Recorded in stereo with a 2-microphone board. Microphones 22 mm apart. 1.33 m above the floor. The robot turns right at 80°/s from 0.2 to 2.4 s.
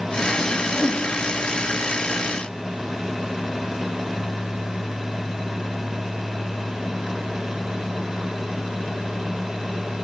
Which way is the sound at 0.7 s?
25° left (ahead or behind).